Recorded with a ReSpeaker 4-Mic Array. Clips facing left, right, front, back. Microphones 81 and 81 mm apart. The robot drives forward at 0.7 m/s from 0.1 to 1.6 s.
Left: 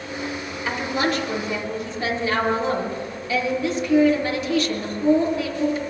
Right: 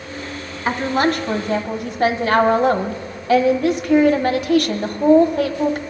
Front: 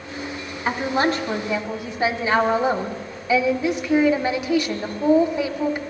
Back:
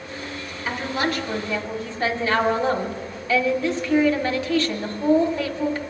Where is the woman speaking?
45° right, 1.5 m; by 5.8 s 75° right, 1.1 m.